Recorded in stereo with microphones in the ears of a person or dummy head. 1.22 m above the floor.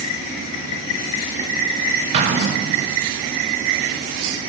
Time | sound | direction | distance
2.1 | an explosion | 25° right (ahead or behind) | 0.6 m